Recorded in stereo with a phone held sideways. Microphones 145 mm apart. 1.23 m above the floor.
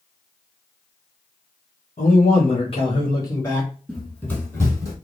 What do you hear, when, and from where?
2.0 s a man speaking: 60° left (ahead or behind), 1.1 m; by 3.7 s 10° left (ahead or behind), 1.0 m
3.9 s running footsteps: centre (ahead or behind), 1.7 m; by 5.0 s 25° left (ahead or behind), 1.5 m